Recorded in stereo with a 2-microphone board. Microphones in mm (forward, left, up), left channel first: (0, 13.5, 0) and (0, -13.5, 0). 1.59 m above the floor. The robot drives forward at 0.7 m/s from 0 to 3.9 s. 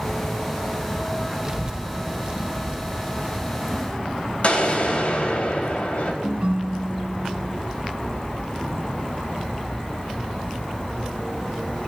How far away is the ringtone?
About 0.8 m.